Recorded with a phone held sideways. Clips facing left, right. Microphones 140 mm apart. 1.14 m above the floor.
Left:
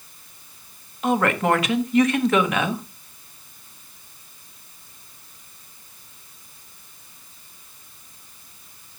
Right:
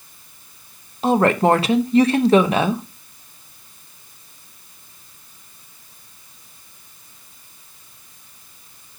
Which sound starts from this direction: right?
A woman speaking, at 1.0 s.